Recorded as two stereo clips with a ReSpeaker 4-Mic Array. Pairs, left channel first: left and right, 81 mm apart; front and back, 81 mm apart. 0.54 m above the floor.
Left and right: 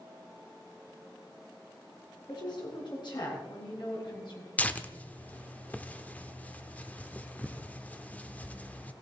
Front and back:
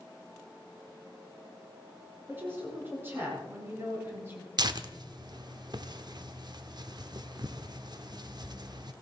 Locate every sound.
2.3 s a woman speaking: 115° left, 6.5 m
4.6 s tearing paper: 160° left, 0.7 m